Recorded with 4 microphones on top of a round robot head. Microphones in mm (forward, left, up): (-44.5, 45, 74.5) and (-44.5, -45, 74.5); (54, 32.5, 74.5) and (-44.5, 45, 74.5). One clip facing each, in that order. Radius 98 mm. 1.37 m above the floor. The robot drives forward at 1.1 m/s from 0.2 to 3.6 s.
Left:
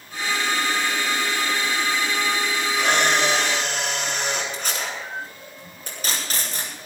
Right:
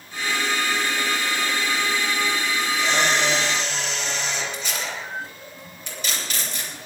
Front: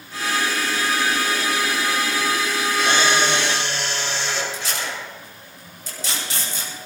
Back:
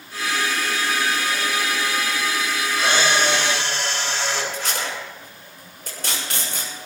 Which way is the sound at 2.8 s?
120° left.